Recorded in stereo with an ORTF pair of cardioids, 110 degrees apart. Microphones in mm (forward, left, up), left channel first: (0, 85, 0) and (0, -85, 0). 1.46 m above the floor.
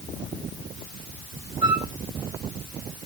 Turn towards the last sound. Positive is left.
turn(degrees=-30)